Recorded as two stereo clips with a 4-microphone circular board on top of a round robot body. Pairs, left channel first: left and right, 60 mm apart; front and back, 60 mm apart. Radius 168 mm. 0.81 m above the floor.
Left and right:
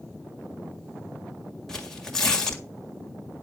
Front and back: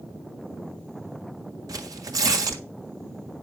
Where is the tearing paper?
170° left, 1.7 m.